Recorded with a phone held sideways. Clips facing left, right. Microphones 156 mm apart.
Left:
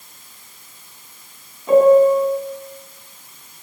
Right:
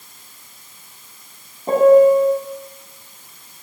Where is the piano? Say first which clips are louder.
Right 1 dB; 40° right (ahead or behind), 7.5 m.